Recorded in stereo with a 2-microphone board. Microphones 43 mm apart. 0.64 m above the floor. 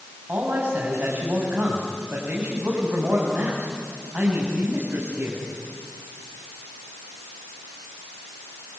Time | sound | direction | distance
0.3 | a man speaking | 50° right (ahead or behind) | 5.5 m